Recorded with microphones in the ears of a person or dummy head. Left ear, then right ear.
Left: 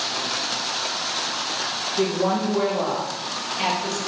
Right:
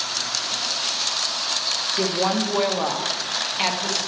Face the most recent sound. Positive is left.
turn(degrees=-15)  # may be behind; listen again after turning